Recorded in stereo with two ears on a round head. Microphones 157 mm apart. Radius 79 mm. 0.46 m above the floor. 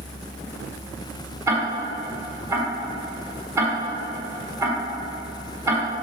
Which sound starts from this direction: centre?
Ticking, at 1.5 s.